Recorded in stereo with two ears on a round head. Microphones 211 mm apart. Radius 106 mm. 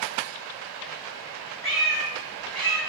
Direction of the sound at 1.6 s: 5° left (ahead or behind).